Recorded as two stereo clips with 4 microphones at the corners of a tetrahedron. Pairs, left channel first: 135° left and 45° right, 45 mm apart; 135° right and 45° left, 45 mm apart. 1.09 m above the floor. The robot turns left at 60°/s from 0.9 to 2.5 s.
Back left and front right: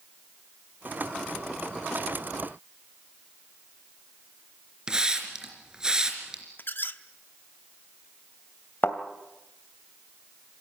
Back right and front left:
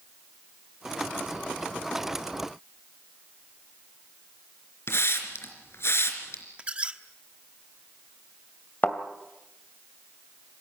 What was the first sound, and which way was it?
A hiss, 115° right.